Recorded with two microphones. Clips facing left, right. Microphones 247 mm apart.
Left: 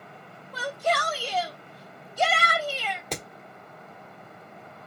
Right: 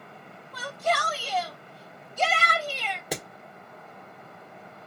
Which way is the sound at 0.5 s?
30° left (ahead or behind).